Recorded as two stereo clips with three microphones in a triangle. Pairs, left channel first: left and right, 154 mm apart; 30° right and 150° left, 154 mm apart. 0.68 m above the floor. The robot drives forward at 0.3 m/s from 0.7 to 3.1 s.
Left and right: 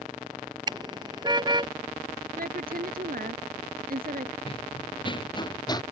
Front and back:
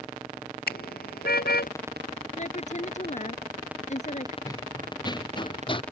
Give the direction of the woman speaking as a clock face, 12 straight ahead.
2 o'clock.